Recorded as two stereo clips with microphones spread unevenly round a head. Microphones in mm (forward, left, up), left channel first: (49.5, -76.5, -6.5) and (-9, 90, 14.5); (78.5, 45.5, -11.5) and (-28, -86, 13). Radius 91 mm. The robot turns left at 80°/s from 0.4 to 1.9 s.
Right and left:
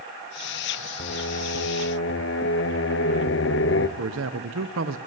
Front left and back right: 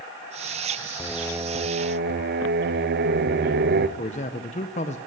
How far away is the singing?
About 0.9 m.